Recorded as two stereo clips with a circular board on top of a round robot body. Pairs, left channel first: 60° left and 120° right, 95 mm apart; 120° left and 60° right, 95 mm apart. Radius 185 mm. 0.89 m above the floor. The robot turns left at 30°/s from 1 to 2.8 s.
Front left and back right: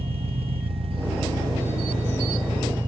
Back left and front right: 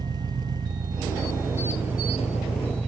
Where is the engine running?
105° right, 1.0 m; by 2.9 s 160° right, 1.0 m.